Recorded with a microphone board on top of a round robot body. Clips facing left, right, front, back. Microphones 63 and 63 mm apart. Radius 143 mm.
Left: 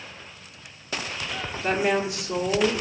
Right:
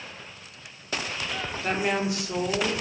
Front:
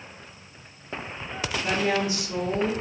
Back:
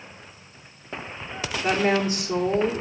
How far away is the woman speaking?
About 1.7 m.